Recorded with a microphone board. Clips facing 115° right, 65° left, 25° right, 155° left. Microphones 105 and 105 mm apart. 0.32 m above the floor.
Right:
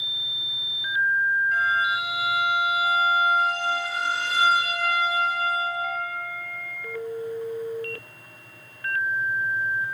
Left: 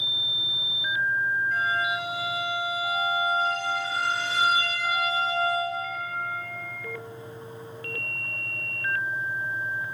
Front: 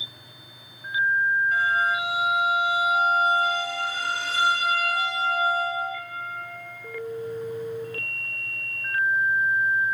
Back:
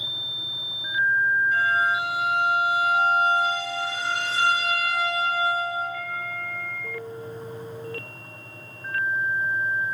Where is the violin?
30° right, 2.5 m.